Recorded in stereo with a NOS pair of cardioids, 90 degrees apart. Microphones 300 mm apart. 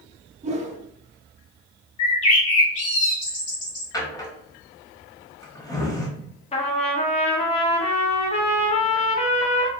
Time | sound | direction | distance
0.4 | a whoosh | 20° right | 0.6 m
2.0 | a bird | 50° left | 1.3 m
3.9 | a drawer | 10° left | 1.0 m
6.5 | a trumpet | 20° left | 0.6 m